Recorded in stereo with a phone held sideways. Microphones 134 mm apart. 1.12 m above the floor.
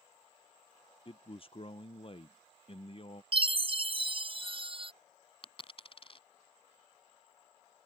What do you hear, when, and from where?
1.1 s a man speaking: 45° left (ahead or behind)
3.3 s a chime: 40° right (ahead or behind)
5.4 s a dropped coin: 45° left (ahead or behind)